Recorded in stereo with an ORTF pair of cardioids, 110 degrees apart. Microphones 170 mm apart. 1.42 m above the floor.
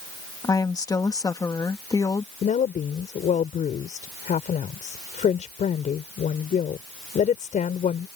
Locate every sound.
0.4 s a woman speaking: 20° left
2.4 s a woman speaking: 45° left